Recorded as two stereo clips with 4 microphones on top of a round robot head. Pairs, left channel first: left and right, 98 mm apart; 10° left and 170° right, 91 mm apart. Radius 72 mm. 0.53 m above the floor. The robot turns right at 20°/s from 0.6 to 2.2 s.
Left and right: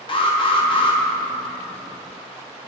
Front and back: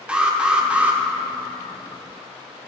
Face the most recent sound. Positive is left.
turn(degrees=145)